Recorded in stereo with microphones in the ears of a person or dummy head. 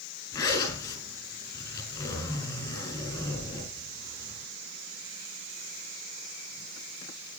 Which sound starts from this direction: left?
A zipper, at 0.3 s.